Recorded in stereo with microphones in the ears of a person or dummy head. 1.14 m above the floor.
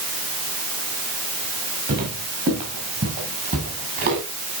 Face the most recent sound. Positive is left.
turn(degrees=-45)  # may be behind; listen again after turning